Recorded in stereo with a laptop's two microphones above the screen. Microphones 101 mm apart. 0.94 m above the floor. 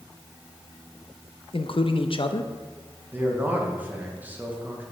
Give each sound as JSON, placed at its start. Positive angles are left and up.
{"t": 1.5, "sound": "a man speaking", "side_deg": 60, "distance_m": 0.5}
{"t": 3.1, "sound": "a man speaking", "side_deg": -20, "distance_m": 0.9}